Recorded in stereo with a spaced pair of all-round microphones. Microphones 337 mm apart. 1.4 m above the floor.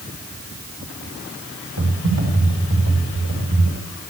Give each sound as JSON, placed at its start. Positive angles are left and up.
{"t": 1.8, "sound": "typing on a keyboard", "side_deg": -80, "distance_m": 4.5}